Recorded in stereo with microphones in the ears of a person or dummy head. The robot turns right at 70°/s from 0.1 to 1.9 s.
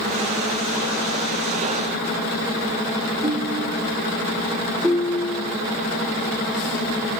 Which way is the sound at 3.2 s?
30° right (ahead or behind).